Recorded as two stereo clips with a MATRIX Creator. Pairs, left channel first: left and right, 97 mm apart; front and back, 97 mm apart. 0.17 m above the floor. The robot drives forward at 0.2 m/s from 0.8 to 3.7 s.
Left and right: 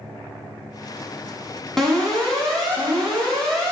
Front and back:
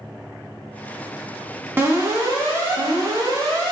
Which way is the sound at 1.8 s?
170° left.